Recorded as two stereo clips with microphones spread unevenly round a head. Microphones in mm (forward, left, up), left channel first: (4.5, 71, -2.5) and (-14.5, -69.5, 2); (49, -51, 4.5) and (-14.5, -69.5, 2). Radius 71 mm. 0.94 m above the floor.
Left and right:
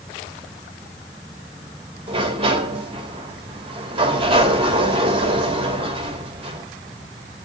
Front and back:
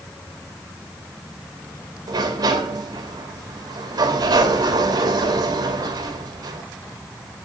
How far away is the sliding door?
About 3 m.